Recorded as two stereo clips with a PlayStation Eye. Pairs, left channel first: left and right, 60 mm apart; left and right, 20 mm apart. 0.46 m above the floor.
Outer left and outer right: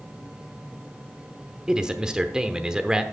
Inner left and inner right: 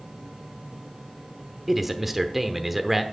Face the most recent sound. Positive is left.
turn(degrees=-15)  # may be behind; listen again after turning